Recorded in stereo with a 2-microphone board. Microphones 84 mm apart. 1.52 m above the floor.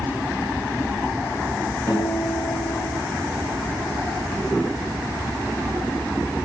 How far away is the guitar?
About 4 m.